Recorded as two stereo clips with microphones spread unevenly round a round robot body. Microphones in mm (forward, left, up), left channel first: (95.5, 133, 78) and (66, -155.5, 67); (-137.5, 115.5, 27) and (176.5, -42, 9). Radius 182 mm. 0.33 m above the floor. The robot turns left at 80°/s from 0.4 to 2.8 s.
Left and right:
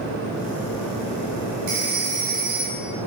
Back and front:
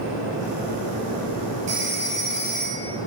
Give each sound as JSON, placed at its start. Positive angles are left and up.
{"t": 1.7, "sound": "a phone ringing", "azimuth_deg": -95, "distance_m": 1.8}